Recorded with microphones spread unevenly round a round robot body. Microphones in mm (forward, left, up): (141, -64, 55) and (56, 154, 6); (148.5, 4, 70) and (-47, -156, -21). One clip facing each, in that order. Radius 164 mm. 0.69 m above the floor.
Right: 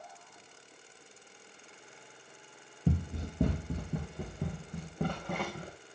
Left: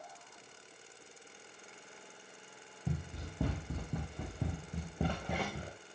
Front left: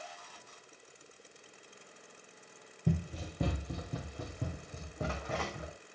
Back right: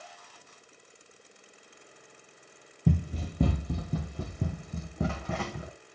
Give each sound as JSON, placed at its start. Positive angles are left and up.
{"t": 2.9, "sound": "running footsteps", "azimuth_deg": -120, "distance_m": 1.2}